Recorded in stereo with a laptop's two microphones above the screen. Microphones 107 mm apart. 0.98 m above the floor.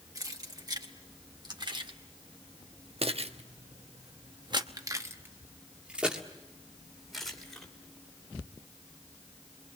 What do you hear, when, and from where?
0.1 s keys jangling: 40° right (ahead or behind), 3 m; by 7.7 s 5° left (ahead or behind), 2.5 m